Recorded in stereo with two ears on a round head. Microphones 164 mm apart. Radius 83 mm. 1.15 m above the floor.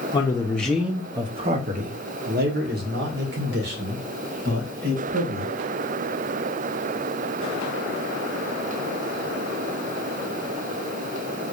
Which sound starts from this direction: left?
A man speaking, at 0.1 s.